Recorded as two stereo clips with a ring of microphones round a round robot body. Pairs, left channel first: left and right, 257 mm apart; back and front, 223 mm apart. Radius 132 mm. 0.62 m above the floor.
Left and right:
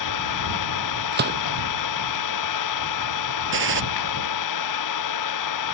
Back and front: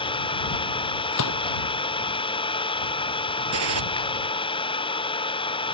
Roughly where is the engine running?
Left.